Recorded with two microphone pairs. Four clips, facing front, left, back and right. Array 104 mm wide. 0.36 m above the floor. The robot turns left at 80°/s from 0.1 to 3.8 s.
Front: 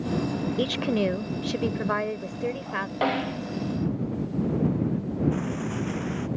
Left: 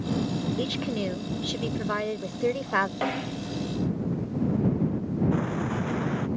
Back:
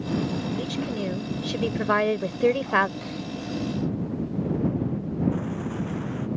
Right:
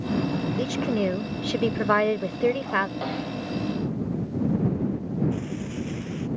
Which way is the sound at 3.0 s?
15° left.